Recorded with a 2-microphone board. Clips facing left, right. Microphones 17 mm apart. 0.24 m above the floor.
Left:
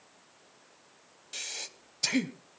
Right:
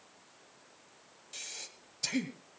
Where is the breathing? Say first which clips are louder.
Left 6 dB; 20° left (ahead or behind), 0.9 m.